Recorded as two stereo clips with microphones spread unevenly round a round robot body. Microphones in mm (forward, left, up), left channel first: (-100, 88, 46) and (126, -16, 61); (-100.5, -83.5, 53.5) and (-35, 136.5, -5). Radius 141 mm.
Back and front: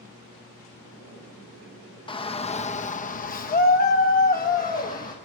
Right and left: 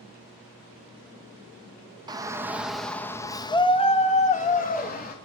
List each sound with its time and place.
2.1 s a shout: 105° left, 1.1 m; by 5.2 s 155° right, 1.9 m